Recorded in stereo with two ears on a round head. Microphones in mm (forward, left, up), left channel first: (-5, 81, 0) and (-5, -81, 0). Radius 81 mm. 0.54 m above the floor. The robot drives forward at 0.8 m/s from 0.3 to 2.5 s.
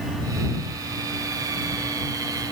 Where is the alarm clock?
I don't hear an alarm clock.